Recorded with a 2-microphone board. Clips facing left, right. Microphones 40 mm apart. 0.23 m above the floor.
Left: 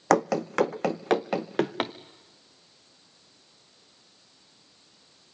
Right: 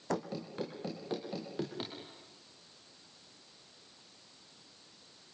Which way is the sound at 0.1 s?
75° left (ahead or behind).